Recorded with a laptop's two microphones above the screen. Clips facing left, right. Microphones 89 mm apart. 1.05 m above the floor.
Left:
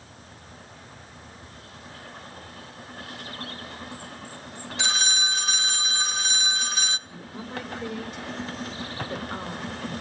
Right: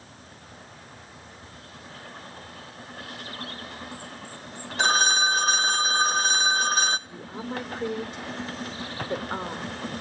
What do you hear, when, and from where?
4.8 s a phone ringing: 45° right (ahead or behind), 0.6 m
7.1 s a woman speaking: 35° right (ahead or behind), 3 m